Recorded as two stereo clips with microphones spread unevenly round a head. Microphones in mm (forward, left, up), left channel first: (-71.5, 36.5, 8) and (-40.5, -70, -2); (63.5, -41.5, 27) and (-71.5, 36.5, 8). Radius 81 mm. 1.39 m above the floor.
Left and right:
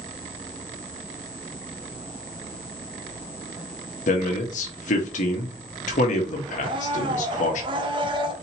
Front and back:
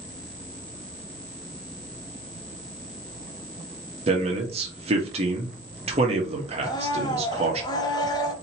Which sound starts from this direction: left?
A man speaking, at 4.1 s.